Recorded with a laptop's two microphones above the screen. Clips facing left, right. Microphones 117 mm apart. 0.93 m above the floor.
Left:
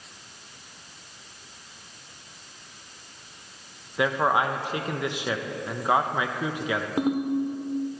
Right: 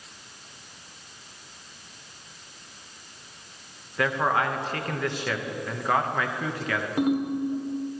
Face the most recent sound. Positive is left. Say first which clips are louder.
# right 1 dB
turn(degrees=25)  # may be behind; listen again after turning